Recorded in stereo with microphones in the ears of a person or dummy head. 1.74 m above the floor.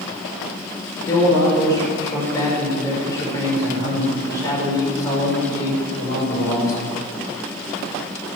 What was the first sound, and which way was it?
A man speaking, 20° left (ahead or behind).